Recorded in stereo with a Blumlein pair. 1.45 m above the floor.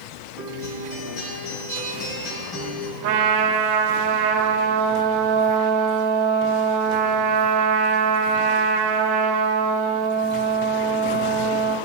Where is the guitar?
35° left, 4 m.